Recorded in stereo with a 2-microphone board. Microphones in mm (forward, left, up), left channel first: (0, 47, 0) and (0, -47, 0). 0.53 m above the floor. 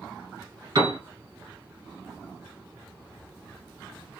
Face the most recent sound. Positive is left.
turn(degrees=-50)  # may be behind; listen again after turning